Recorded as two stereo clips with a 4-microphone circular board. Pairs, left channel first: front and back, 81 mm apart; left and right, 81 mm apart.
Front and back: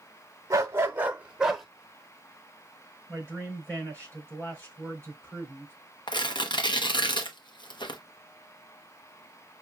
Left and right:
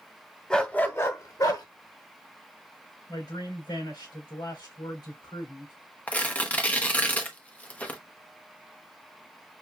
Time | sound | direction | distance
0.5 | a dog barking | 165° left | 0.8 m
3.1 | a man speaking | 70° left | 3.5 m
6.1 | tearing paper | 20° left | 0.8 m